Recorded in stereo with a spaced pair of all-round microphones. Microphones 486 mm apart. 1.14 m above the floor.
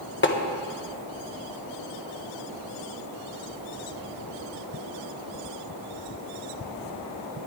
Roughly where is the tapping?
Left.